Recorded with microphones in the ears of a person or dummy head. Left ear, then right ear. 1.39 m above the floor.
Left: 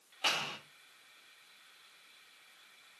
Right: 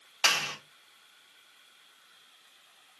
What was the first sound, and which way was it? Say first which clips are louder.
A clap: right 7 dB; 75° right (ahead or behind).